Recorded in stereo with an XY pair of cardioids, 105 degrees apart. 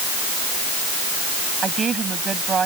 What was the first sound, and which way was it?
A woman speaking, 40° right.